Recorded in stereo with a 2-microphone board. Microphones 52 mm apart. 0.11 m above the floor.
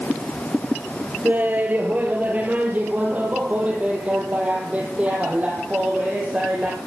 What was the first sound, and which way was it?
Laughter, 35° right (ahead or behind).